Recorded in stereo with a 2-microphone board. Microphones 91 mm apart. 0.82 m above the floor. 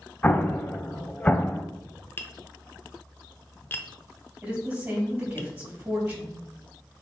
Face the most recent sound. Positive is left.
turn(degrees=-15)  # may be behind; listen again after turning